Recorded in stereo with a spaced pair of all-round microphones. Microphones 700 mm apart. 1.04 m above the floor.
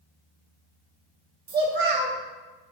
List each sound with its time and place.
1.5 s a child speaking: 85° right, 1.1 m